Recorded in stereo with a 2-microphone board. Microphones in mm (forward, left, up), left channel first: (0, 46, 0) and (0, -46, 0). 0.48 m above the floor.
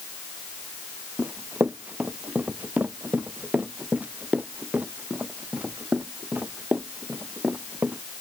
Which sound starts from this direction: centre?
Running footsteps, at 1.2 s.